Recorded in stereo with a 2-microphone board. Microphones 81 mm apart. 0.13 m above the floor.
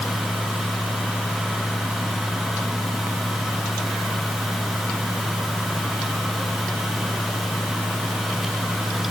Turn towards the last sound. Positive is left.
No sound to turn to.